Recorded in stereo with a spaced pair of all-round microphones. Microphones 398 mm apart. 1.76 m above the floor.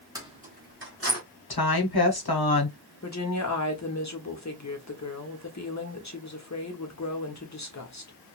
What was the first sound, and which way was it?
Keys jangling, 10° right (ahead or behind).